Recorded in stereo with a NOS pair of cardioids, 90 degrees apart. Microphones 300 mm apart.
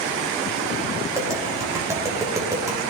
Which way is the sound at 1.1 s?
10° right.